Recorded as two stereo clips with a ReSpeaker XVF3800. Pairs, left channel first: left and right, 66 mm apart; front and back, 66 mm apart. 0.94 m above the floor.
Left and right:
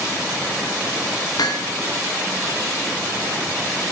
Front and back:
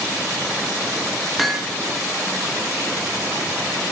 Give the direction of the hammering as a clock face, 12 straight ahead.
9 o'clock.